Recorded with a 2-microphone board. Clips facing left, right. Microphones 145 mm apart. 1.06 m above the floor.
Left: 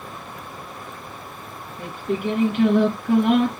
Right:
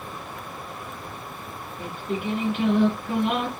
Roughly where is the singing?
Left.